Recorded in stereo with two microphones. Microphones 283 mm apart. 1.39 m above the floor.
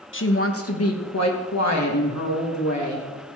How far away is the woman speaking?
About 1.1 m.